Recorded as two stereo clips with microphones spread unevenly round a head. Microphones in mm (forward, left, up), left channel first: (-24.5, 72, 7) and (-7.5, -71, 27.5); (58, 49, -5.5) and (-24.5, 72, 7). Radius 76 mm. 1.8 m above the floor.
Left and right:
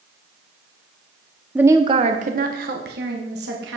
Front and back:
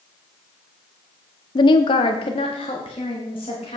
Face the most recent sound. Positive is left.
turn(degrees=-70)